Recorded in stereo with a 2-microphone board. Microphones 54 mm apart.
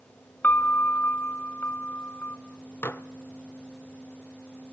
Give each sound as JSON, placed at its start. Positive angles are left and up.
{"t": 0.4, "sound": "a piano", "side_deg": 40, "distance_m": 1.3}
{"t": 2.8, "sound": "dishes clattering", "side_deg": 45, "distance_m": 0.9}